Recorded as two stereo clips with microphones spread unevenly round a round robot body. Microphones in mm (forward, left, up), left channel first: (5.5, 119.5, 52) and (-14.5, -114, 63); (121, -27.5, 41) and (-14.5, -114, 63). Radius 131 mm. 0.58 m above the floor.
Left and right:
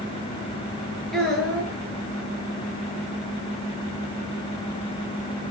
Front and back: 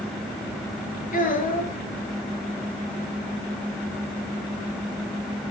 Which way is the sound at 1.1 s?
5° right.